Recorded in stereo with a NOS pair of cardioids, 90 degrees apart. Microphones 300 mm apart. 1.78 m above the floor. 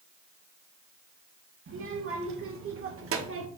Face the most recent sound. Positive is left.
turn(degrees=-50)